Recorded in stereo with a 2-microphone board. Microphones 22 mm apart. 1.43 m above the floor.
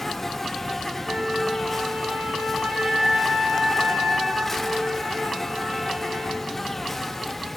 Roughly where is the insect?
Centre.